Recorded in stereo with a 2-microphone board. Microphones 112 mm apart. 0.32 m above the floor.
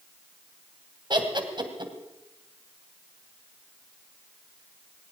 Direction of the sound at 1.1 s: 45° right (ahead or behind).